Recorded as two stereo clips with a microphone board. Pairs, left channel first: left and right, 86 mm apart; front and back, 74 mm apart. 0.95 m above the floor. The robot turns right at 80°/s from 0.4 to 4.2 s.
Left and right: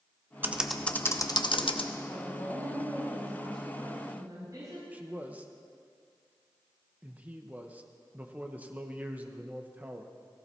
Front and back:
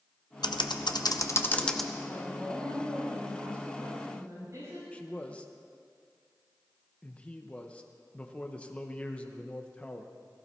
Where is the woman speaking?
55° left, 6.5 m; by 4.8 s 135° right, 6.5 m.